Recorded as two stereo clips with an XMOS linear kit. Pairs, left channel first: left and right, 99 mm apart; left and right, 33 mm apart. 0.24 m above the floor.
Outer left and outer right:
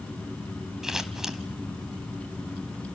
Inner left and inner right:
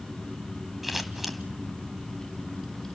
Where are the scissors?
5° right (ahead or behind), 1.5 m.